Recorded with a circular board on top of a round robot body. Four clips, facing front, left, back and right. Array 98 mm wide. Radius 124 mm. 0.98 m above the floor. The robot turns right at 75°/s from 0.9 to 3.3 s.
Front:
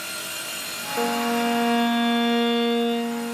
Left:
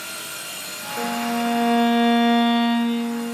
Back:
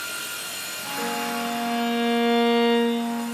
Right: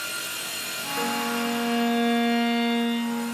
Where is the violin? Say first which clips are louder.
Left 4 dB, front 5 dB; 5° left, 3.5 m; by 3.3 s straight behind, 3.5 m.